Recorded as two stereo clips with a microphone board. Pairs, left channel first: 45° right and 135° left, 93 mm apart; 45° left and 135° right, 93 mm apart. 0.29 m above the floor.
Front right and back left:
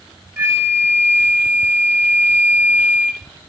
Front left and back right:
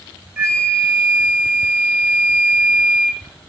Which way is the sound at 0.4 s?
Straight behind.